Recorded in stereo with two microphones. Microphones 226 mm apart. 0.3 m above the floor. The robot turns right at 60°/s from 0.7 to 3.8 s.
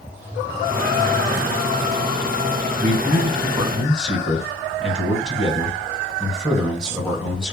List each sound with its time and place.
2.8 s a man speaking: 65° right, 2.5 m; by 7.5 s straight ahead, 2.5 m